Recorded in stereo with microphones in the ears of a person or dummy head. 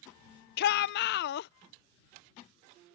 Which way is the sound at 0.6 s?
55° left (ahead or behind).